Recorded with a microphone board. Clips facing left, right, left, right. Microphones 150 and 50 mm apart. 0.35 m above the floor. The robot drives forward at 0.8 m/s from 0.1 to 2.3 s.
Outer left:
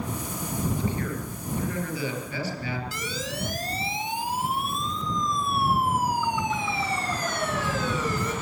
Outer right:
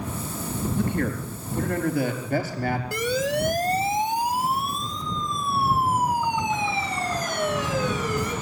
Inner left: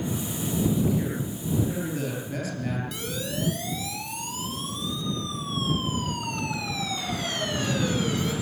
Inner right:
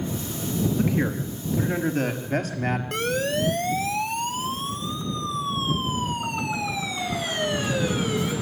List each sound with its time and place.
0.8 s a man speaking: 55° right (ahead or behind), 6 m; by 2.8 s 45° right (ahead or behind), 7 m
2.9 s a siren: 55° right (ahead or behind), 2.5 m; by 8.3 s 10° right (ahead or behind), 6.5 m